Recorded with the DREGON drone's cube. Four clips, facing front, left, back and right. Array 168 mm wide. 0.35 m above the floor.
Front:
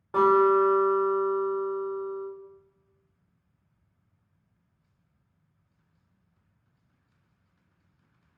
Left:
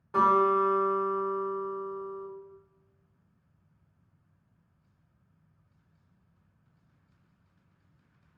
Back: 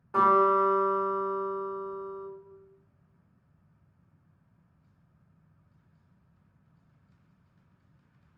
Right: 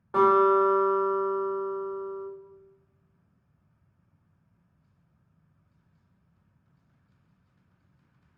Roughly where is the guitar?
Ahead right.